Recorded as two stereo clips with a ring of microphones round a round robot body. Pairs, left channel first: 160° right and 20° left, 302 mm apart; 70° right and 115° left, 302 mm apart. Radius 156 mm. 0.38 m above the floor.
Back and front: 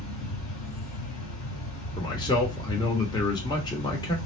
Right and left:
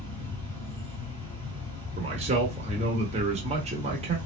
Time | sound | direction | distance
0.0 | an insect | 135° right | 2 m
2.0 | a man speaking | 145° left | 0.8 m